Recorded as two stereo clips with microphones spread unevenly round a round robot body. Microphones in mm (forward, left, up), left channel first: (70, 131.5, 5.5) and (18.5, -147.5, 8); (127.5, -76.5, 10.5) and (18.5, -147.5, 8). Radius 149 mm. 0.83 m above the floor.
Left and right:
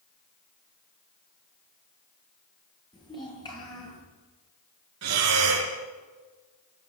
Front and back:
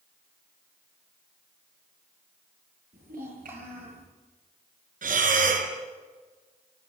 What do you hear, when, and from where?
2.9 s a child speaking: 155° left, 9 m
5.0 s breathing: 140° right, 4.5 m